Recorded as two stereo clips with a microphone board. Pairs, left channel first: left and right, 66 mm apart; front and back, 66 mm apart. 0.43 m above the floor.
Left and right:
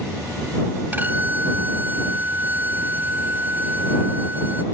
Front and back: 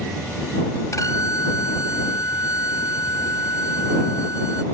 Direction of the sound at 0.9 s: 30° right.